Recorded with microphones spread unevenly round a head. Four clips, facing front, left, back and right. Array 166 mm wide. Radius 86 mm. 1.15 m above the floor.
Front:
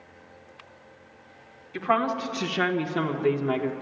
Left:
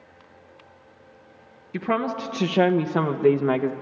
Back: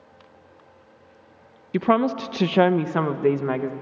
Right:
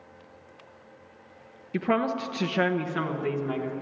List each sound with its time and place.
1.7 s a woman speaking: 170° right, 0.9 m; by 3.7 s 110° left, 1.1 m